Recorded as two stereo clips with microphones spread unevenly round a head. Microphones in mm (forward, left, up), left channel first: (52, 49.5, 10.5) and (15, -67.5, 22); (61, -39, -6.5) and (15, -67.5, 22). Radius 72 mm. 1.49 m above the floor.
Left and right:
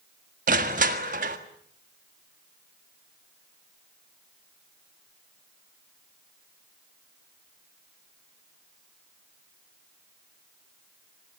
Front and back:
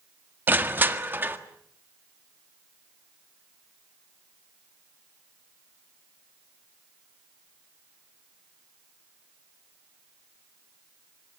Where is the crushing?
120° right, 1.6 m.